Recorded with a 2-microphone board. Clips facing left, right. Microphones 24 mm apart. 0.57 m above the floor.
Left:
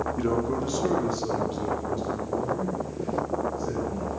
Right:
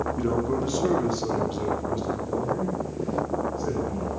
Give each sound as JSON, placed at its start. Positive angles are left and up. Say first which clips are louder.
{"t": 0.2, "sound": "a man speaking", "louder": "even", "side_deg": 15, "distance_m": 0.8}